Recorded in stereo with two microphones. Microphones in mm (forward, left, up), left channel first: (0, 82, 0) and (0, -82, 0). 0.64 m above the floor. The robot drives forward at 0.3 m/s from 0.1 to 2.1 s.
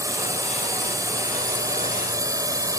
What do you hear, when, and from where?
0.0 s a drone: 20° right (ahead or behind)